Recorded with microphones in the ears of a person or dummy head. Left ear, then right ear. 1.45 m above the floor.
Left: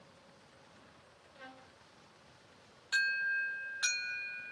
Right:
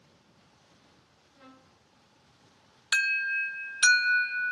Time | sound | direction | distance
1.4 | a trumpet | 70° left (ahead or behind) | 1.1 m
2.9 | an alarm | 40° right (ahead or behind) | 0.6 m